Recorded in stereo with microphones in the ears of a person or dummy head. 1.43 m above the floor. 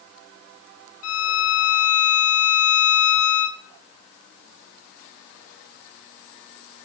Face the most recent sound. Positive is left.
turn(degrees=80)